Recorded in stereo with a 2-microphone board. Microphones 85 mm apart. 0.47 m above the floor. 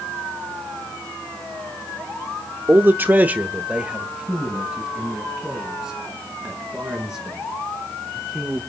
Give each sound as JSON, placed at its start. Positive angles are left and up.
{"t": 2.7, "sound": "a man speaking", "side_deg": -25, "distance_m": 0.8}